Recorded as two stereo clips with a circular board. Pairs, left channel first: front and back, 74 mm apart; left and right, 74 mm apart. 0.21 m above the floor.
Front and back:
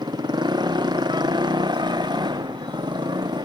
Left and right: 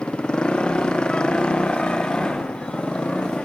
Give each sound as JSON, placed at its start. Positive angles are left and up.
{"t": 0.0, "sound": "a motorcycle", "azimuth_deg": 170}